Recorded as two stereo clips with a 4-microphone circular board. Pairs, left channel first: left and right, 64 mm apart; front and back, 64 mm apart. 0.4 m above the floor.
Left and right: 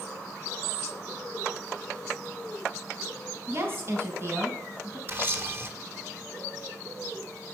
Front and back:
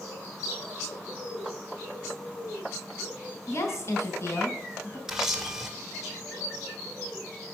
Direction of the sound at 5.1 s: 105° right.